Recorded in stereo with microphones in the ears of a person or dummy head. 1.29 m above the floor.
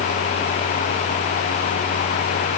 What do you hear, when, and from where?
Only background noise.